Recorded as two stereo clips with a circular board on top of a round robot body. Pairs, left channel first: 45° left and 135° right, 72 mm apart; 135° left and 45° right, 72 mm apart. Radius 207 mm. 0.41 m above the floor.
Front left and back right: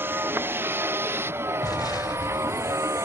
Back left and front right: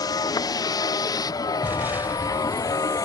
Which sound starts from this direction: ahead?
An explosion, at 1.6 s.